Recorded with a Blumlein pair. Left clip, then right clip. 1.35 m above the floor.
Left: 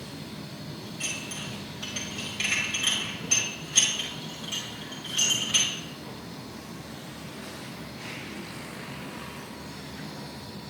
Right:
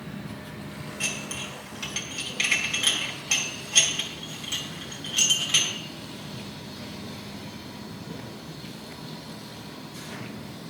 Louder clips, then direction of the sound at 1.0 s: Right 3 dB; 20° right.